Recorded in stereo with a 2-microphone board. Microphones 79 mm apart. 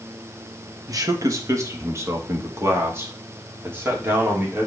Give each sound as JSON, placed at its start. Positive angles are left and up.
{"t": 0.9, "sound": "a man speaking", "side_deg": -45, "distance_m": 1.6}